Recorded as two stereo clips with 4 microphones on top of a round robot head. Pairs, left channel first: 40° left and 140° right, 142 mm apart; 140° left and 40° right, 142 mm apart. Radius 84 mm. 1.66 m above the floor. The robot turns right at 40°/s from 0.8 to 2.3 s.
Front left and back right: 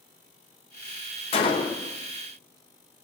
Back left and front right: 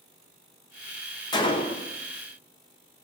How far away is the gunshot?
About 0.8 m.